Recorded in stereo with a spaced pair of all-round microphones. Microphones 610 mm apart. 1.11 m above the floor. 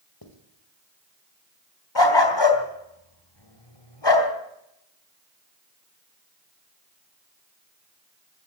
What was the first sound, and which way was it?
Writing, 35° left (ahead or behind).